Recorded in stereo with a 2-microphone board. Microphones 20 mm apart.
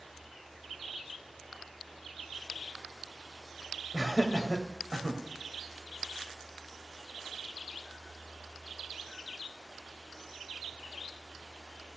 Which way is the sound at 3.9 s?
15° left (ahead or behind).